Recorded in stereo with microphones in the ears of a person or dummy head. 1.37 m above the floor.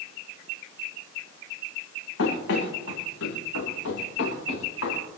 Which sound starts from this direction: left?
Running footsteps, at 2.2 s.